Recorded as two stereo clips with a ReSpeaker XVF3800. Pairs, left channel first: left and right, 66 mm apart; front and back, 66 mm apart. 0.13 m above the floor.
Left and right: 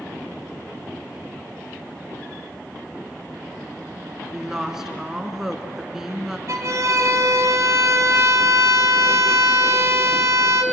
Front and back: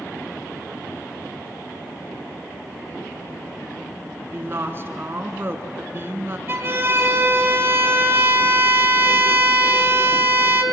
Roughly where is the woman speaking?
Behind.